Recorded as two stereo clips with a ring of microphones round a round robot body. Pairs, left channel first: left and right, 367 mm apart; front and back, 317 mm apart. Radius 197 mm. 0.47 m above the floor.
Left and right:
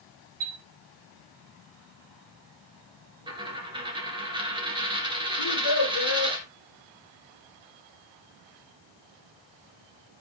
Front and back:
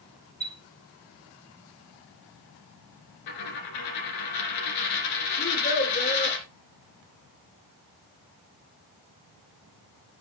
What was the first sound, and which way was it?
A chime, 85° right.